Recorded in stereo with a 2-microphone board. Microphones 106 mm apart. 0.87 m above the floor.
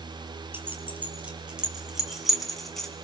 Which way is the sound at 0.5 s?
20° right (ahead or behind).